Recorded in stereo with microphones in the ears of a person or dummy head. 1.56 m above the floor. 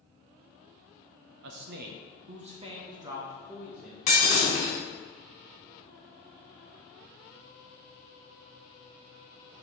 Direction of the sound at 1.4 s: 75° right (ahead or behind).